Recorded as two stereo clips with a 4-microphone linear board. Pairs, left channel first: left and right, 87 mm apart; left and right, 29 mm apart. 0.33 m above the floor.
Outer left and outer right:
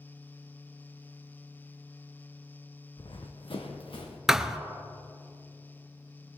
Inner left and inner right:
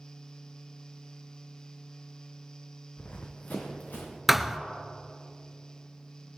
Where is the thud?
5° right (ahead or behind), 0.7 m.